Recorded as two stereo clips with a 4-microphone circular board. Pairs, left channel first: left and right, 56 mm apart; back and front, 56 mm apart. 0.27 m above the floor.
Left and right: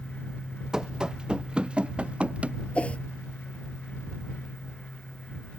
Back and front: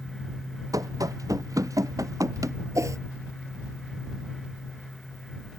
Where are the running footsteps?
10° right; by 2.6 s 20° right.